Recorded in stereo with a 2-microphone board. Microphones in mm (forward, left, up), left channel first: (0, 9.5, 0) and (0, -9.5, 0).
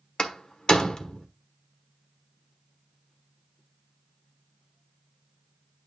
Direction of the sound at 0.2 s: 40° left (ahead or behind).